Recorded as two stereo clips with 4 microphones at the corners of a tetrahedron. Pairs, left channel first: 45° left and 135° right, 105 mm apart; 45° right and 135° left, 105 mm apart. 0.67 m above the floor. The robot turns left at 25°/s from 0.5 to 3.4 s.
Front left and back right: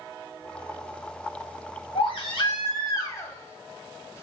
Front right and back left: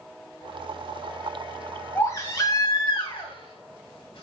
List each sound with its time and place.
1.9 s a baby crying: 20° left, 1.9 m; by 4.2 s 20° right, 1.9 m